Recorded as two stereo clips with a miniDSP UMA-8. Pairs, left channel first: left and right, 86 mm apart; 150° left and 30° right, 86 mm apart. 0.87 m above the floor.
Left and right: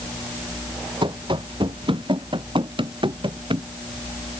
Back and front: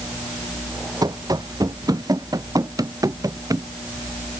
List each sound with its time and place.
1.0 s running footsteps: 70° right; by 3.7 s 75° right